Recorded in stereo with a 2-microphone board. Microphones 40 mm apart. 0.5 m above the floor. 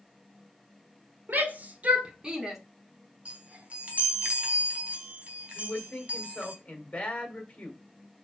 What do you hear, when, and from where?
1.3 s a shout: 50° right (ahead or behind), 1.9 m; by 2.6 s 5° right (ahead or behind), 1.4 m
3.2 s a chime: 35° right (ahead or behind), 2.5 m
5.5 s a man speaking: 20° left (ahead or behind), 2.5 m